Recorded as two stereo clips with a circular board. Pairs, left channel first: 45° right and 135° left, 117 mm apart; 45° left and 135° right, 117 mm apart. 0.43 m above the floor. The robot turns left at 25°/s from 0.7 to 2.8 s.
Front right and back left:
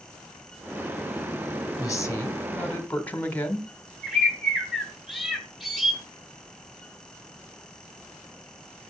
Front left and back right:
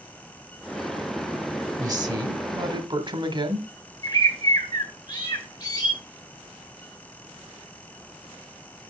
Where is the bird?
45° left, 1.6 m.